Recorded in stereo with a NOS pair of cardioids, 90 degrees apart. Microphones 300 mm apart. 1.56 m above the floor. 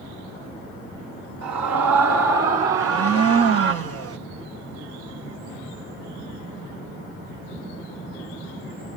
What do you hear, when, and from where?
1.4 s a scream: 70° right, 5.5 m; by 3.7 s 50° right, 5 m
2.7 s a blender: 55° right, 1.9 m